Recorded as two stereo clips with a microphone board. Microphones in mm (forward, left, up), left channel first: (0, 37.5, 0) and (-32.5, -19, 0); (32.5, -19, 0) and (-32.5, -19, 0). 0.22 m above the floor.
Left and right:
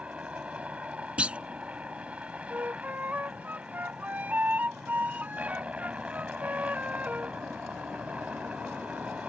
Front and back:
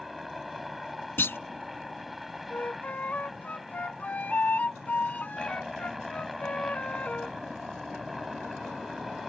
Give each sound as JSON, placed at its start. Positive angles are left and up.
{"t": 0.0, "sound": "a helicopter", "azimuth_deg": -95}
{"t": 1.2, "sound": "a clunk", "azimuth_deg": -55}
{"t": 2.5, "sound": "a flute", "azimuth_deg": -60}